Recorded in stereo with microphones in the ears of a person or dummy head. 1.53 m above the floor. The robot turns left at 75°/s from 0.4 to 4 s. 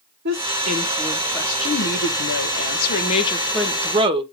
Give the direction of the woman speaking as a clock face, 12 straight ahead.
4 o'clock.